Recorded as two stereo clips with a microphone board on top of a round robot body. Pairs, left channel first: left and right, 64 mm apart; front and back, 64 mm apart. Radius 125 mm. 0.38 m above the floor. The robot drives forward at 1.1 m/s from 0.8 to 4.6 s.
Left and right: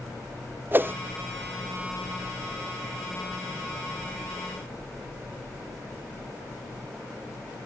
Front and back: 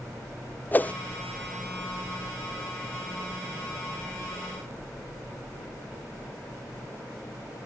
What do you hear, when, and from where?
0.7 s a whoosh: 50° right; by 0.9 s 65° right